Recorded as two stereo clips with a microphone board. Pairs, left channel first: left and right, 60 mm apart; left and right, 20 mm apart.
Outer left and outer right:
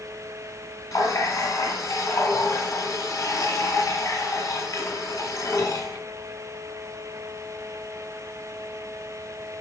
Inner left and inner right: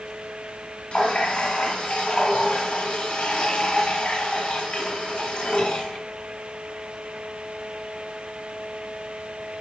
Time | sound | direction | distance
0.9 | a running tap | 65° left (ahead or behind) | 1.7 m